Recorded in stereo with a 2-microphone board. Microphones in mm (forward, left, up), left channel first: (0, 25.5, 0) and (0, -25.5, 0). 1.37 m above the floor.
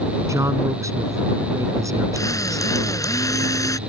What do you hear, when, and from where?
0.3 s a man speaking: 70° right (ahead or behind); by 3.0 s 85° right
2.1 s a drill: 90° left